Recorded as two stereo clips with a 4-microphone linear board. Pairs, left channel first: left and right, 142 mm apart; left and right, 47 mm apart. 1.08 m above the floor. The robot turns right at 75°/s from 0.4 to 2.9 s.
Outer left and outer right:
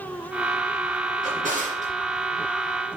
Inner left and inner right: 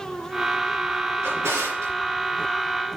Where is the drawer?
110° right, 3.5 m; by 1.9 s 55° right, 3.5 m.